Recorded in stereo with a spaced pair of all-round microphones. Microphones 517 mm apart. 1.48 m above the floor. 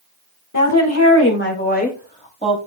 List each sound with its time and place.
0.5 s a woman speaking: 35° left (ahead or behind), 1.8 m; by 2.6 s 10° left (ahead or behind), 3 m